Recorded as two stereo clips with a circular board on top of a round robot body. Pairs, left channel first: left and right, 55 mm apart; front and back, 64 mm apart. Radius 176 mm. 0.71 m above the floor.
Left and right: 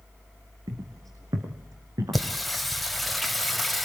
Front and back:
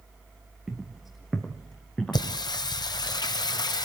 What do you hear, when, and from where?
0.7 s footsteps: 95° right, 3 m; by 2.2 s 80° right, 3.5 m
2.1 s singing: straight ahead, 1.3 m